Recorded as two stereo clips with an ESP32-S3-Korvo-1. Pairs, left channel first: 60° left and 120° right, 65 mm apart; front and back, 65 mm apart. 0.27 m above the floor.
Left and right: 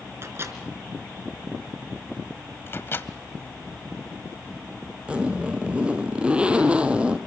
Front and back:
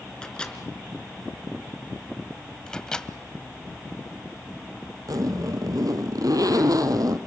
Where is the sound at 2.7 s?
70° left, 1.3 m.